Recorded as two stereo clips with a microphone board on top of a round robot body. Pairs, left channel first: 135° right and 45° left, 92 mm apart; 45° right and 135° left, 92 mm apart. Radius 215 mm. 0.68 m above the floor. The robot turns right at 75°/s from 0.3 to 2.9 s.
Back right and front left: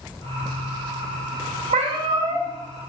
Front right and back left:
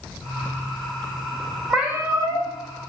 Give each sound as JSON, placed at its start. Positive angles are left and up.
{"t": 1.7, "sound": "a cat meowing", "azimuth_deg": 45, "distance_m": 0.6}